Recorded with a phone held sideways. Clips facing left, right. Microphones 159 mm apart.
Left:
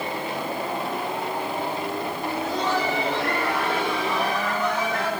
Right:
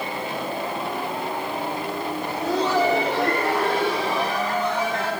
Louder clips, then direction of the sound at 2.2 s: Right 4 dB; 80° right.